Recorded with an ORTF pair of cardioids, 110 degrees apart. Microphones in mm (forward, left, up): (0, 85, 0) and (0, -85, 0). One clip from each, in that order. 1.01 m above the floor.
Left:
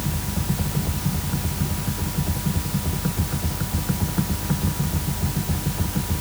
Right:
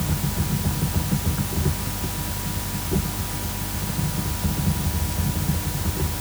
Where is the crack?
No crack in this recording.